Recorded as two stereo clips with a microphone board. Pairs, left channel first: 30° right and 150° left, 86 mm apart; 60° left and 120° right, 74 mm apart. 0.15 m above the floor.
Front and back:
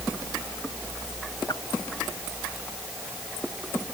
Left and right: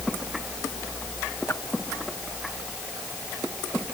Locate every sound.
1.5 s a whoosh: 5° left